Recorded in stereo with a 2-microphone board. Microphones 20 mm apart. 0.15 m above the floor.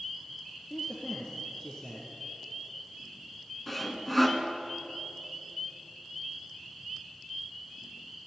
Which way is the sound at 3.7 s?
5° left (ahead or behind).